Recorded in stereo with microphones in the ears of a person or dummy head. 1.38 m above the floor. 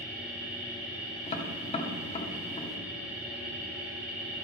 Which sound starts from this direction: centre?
A machine running, at 0.0 s.